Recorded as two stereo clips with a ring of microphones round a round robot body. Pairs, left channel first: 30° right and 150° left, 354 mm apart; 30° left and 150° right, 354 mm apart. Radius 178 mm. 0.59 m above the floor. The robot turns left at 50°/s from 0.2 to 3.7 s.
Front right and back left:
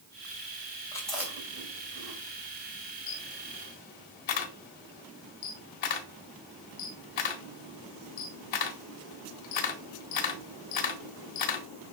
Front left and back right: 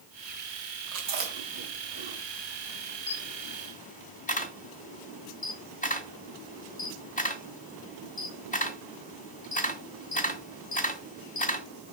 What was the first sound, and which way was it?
Chewing, 110° right.